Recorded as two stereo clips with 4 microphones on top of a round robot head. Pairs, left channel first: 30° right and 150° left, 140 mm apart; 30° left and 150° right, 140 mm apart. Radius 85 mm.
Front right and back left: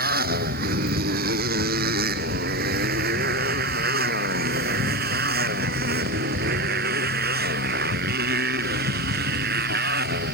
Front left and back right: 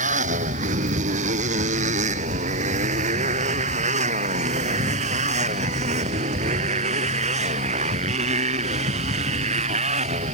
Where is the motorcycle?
170° left; by 10.3 s 165° left.